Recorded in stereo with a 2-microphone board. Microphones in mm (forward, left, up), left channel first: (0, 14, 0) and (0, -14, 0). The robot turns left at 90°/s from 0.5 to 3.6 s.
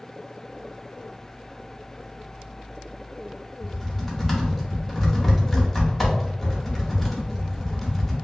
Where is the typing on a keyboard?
Centre (ahead or behind), 0.9 m.